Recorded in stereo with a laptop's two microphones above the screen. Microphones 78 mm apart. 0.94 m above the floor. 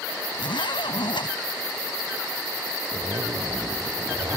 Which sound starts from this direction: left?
A zipper, at 0.3 s.